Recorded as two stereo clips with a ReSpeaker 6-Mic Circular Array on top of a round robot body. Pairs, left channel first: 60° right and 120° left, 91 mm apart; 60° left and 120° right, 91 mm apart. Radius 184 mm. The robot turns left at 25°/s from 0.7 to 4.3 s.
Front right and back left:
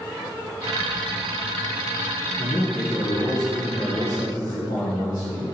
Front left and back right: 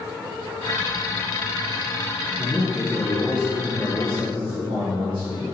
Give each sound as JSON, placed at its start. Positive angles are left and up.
{"t": 2.4, "sound": "a man speaking", "azimuth_deg": -50, "distance_m": 2.5}